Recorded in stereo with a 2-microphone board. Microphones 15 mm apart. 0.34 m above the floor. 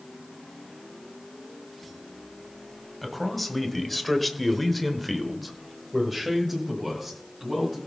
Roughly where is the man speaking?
Centre.